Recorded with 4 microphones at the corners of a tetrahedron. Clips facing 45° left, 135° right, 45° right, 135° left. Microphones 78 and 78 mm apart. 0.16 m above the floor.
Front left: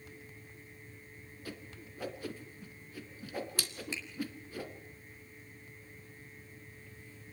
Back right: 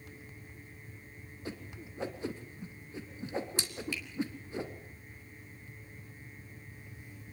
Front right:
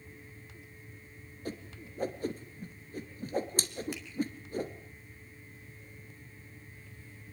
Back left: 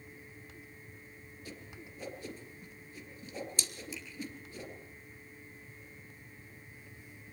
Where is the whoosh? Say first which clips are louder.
Back right 4 dB, front right 8 dB; 70° right, 2.5 m.